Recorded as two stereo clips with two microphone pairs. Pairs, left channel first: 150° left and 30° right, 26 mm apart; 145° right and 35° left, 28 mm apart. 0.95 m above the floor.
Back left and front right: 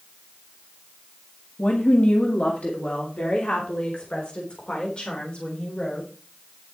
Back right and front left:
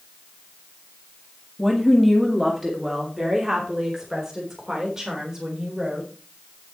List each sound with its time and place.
1.6 s a woman speaking: 125° left, 1.9 m; by 6.1 s 105° left, 4.5 m